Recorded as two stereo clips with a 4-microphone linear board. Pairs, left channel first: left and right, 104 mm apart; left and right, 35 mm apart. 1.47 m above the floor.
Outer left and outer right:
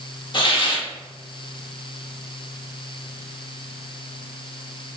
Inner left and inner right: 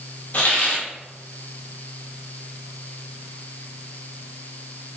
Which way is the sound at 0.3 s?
50° left (ahead or behind).